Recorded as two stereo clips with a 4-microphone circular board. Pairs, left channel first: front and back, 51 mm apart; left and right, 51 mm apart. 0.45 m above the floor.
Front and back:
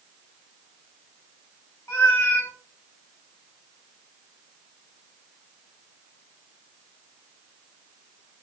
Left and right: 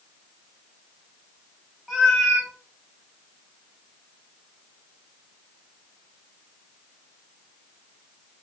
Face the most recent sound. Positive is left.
turn(degrees=-5)